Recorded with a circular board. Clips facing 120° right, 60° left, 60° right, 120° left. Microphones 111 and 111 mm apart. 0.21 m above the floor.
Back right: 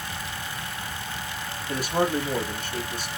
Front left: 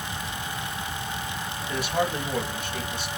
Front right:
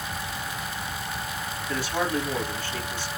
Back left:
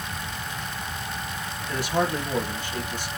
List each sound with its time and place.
1.7 s a man speaking: 165° right, 3 m